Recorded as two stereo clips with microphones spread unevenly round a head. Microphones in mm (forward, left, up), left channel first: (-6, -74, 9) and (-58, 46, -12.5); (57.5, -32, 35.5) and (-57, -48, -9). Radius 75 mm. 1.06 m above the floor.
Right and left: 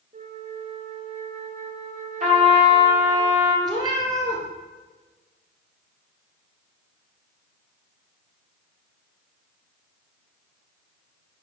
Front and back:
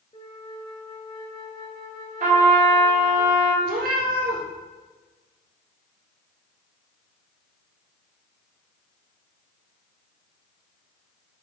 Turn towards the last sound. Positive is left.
turn(degrees=175)